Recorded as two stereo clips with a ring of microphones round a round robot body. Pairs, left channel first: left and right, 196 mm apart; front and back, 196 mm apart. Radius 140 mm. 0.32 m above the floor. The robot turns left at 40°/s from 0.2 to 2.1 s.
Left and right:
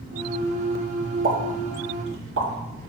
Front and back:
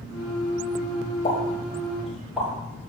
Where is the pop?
60° right, 3 m; by 2.5 s 95° right, 3 m.